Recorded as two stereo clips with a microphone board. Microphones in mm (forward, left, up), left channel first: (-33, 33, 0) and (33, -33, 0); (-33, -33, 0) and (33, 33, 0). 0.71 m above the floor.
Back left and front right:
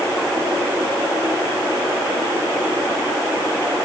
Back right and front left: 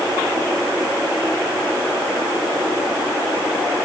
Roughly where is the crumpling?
No crumpling in this recording.